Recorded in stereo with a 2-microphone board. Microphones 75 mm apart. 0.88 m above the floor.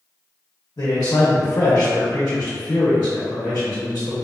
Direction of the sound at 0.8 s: 55° left (ahead or behind).